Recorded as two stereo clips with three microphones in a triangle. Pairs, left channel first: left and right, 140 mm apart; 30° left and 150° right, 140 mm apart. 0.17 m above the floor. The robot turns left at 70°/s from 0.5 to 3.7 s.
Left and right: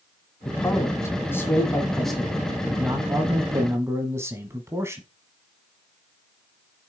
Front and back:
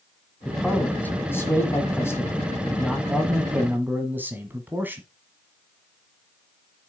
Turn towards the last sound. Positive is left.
turn(degrees=-105)